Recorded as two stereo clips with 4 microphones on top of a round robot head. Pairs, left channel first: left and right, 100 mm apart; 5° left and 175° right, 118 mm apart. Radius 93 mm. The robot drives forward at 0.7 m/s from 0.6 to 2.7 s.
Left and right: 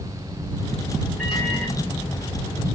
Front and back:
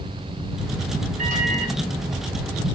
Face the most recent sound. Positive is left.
turn(degrees=180)